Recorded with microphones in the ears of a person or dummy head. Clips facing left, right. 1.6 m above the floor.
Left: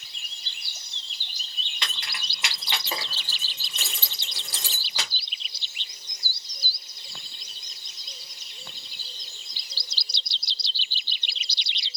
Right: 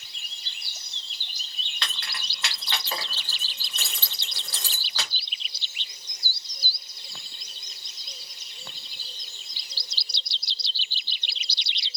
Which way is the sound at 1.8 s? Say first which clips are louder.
Even; 10° left (ahead or behind).